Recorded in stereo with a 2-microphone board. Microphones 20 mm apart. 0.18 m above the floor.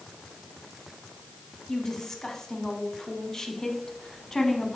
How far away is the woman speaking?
About 1.0 m.